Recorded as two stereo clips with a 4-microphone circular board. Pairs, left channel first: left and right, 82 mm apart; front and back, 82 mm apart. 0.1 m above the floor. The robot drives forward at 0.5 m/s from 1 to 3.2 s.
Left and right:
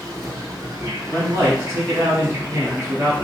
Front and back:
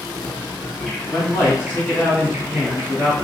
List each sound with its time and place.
0.0 s an insect: 75° right, 0.9 m; by 3.2 s 145° right, 1.3 m
1.1 s a man speaking: 45° right, 1.7 m; by 3.1 s 100° right, 1.4 m